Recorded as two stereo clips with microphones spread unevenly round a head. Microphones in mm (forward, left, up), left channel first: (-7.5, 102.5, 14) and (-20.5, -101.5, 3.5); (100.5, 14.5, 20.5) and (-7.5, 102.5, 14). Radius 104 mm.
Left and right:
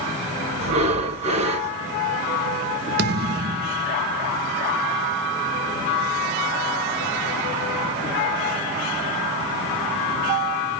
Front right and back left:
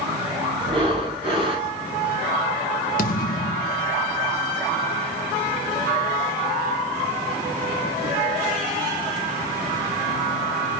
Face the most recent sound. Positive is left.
turn(degrees=-50)